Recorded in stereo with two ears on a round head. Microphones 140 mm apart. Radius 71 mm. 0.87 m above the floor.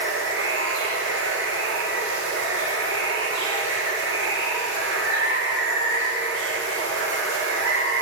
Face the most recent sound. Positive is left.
turn(degrees=-80)